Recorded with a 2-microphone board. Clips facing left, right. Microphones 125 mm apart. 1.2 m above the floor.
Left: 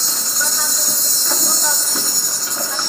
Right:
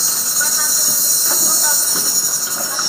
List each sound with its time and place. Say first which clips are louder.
0.0 s an insect: left 1 dB; 5° right (ahead or behind), 0.8 m